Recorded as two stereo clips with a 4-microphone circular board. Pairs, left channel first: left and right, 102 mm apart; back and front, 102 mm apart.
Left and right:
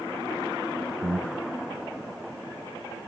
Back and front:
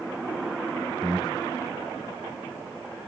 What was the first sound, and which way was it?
Breathing, 90° right.